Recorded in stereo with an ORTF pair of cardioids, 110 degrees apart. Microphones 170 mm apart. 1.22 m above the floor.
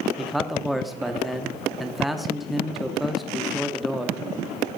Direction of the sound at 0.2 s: Straight ahead.